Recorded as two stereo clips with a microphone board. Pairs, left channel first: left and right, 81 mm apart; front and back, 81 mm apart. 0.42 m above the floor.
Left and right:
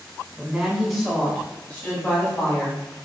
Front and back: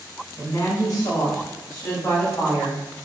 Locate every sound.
0.4 s a woman speaking: 15° right, 1.4 m; by 2.8 s 45° left, 1.7 m